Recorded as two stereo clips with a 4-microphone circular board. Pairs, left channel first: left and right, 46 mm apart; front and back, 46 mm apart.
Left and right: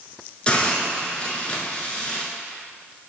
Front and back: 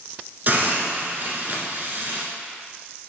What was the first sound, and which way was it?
A hiss, 150° left.